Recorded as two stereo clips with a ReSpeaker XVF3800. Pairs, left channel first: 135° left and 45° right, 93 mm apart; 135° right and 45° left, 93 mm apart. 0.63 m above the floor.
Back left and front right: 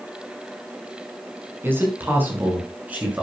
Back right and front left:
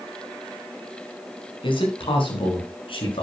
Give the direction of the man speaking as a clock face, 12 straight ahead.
4 o'clock.